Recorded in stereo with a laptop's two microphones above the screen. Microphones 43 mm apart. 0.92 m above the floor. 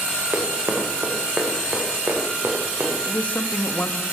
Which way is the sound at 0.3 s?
50° right (ahead or behind).